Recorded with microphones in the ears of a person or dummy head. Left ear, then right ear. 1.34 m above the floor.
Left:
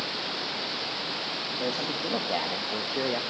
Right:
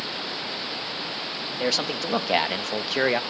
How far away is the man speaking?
About 2.0 m.